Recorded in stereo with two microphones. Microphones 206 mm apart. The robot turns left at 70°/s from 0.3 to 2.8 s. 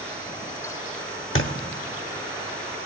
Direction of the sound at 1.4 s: 65° left (ahead or behind).